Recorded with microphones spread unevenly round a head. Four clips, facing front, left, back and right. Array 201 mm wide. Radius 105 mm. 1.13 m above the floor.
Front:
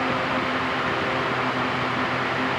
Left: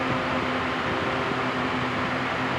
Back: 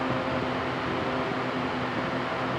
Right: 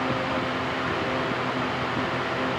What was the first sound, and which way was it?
Only background noise.